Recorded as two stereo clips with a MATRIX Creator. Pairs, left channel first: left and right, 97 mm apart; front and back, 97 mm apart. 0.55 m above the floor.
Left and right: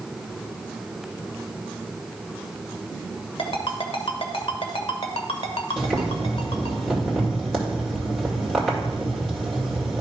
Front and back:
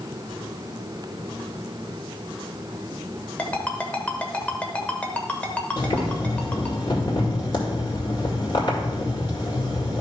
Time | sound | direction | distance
3.4 | a ringtone | 75° left | 1.2 m
5.8 | boiling | 10° left | 2 m